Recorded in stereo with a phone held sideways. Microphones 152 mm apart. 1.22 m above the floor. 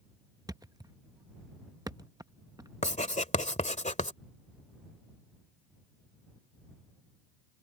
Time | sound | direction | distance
0.5 | a thud | 25° right (ahead or behind) | ?
2.8 | writing | 55° left (ahead or behind) | ?